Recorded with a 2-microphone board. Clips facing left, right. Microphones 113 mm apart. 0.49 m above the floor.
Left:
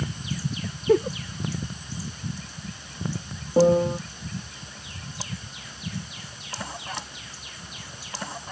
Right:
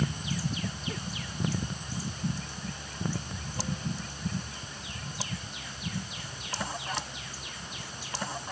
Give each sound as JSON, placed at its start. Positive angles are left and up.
{"t": 0.9, "sound": "a giggle", "side_deg": 60}
{"t": 3.6, "sound": "a piano", "side_deg": 80}